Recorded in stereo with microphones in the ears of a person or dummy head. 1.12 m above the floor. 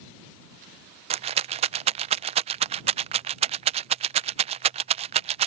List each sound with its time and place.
1.1 s a rattle: 35° right (ahead or behind)